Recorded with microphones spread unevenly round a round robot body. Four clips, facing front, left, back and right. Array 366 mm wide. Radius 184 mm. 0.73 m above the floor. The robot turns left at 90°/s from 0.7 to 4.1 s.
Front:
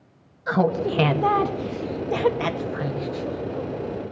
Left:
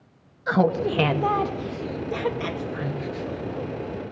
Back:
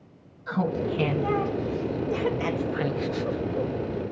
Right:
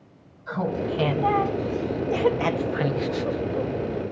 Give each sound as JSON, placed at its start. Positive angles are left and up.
{"t": 0.5, "sound": "laughter", "azimuth_deg": 95, "distance_m": 1.1}